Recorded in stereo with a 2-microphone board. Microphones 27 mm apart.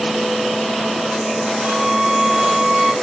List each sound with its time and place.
1.6 s a violin: 20° right (ahead or behind), 3.5 m